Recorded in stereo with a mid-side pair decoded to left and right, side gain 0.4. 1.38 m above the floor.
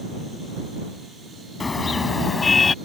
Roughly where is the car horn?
Ahead left.